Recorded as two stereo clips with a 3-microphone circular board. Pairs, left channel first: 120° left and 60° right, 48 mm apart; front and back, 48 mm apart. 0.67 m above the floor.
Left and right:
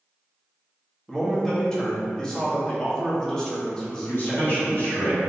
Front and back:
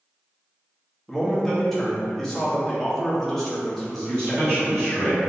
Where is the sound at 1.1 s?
65° left, 1.0 m.